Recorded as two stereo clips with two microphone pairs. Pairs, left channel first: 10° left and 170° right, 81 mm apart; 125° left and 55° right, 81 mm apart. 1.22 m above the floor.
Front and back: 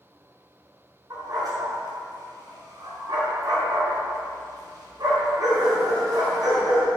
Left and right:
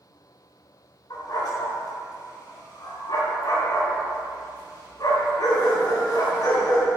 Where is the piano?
No piano in this recording.